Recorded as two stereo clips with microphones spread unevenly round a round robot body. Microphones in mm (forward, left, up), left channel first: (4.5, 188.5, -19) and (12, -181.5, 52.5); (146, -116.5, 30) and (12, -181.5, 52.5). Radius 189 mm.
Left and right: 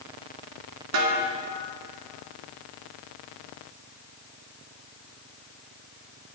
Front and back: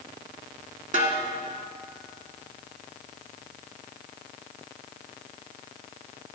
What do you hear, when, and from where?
0.9 s a snare drum: 120° right, 2 m